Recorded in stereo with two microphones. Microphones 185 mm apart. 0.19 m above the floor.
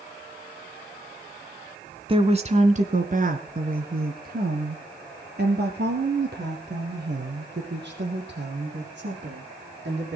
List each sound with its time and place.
2.1 s a woman speaking: 30° right (ahead or behind), 1.5 m; by 10.2 s 70° right (ahead or behind), 7.5 m